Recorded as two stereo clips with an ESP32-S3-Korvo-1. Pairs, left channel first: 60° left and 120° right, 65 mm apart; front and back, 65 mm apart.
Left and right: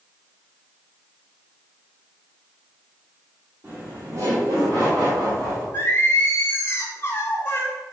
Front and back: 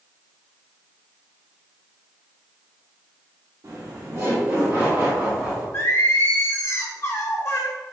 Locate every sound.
3.6 s laughter: 170° right, 0.7 m; by 5.6 s 100° right, 1.5 m
5.7 s singing: 20° left, 0.8 m